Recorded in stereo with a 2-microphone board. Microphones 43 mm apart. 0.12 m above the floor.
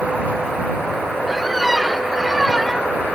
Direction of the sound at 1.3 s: Centre (ahead or behind).